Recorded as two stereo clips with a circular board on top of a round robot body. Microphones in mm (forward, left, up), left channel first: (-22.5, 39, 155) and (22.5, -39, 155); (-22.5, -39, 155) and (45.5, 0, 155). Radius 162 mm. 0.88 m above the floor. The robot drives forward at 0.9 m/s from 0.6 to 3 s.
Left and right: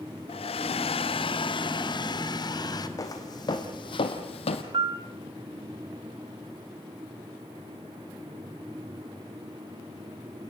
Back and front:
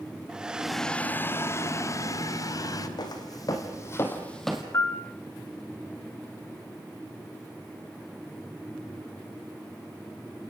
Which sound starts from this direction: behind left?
A hair dryer, at 0.3 s.